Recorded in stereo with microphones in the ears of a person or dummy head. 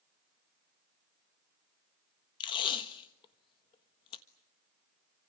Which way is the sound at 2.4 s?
25° left (ahead or behind).